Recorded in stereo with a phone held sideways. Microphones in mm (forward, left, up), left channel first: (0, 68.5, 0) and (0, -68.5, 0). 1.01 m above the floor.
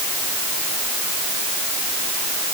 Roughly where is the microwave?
No microwave in this recording.